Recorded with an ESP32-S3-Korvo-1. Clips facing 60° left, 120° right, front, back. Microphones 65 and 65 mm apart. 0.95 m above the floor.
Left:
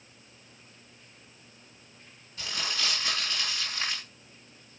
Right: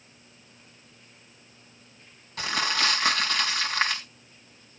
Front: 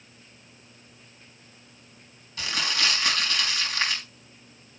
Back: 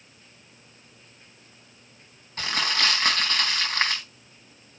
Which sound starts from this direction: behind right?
Crumpling, at 2.4 s.